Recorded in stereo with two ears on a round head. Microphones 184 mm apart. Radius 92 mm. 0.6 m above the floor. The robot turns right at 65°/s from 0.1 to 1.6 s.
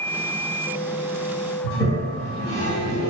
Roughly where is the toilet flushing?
Left.